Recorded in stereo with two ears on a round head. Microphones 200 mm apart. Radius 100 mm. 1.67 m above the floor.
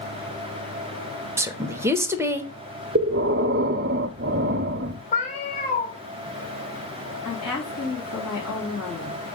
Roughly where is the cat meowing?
Left.